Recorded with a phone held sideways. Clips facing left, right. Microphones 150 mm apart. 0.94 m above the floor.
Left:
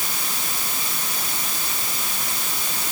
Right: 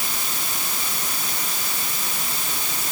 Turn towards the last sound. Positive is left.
No sound to turn to.